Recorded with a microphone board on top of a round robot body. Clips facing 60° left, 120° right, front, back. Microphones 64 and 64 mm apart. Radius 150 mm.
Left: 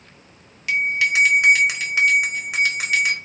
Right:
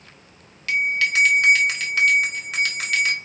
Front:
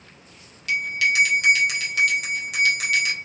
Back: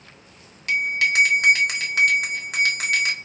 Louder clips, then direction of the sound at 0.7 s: Left 1 dB, back 1 dB; 135° left.